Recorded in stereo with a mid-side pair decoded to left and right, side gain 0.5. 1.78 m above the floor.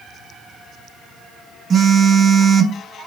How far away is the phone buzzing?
About 0.9 m.